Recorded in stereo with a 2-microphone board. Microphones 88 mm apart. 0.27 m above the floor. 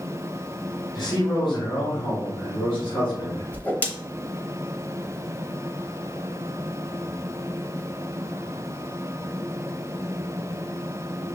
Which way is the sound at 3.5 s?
20° left (ahead or behind).